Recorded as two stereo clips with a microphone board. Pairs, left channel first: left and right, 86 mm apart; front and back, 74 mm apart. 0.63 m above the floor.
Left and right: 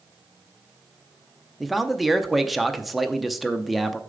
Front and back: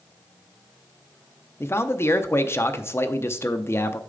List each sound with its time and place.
1.6 s a man speaking: straight ahead, 0.6 m